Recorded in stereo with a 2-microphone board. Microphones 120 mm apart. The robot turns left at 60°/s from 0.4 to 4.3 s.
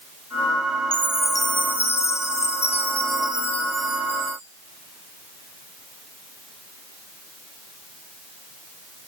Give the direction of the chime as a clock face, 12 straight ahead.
6 o'clock.